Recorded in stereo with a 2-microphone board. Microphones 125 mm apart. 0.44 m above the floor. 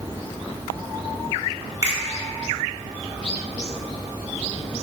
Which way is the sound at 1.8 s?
25° right (ahead or behind).